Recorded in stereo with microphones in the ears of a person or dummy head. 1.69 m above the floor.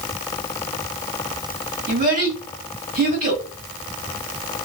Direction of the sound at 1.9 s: 40° right (ahead or behind).